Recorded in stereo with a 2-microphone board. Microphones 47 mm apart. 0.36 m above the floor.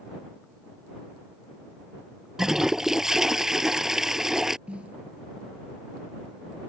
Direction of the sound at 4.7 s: 25° right (ahead or behind).